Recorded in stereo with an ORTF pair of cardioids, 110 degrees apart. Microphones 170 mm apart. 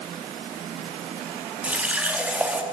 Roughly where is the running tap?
Ahead.